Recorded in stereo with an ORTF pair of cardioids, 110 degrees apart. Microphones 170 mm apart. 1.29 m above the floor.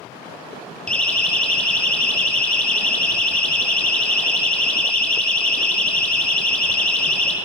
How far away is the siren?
About 5 m.